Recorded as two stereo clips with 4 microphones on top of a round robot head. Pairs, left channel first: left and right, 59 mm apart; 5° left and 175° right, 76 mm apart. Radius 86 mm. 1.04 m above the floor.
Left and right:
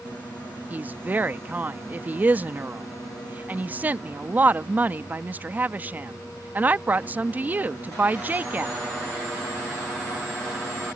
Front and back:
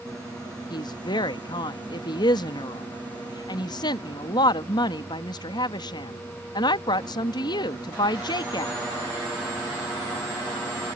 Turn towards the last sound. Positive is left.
turn(degrees=-30)